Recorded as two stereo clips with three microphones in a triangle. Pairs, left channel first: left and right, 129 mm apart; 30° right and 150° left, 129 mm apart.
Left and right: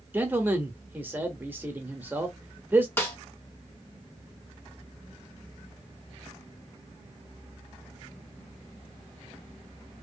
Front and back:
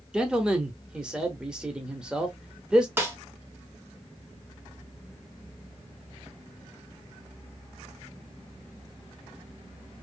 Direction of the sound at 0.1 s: 140° right.